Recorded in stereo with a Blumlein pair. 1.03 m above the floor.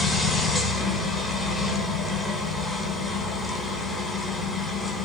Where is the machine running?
5° left, 0.8 m.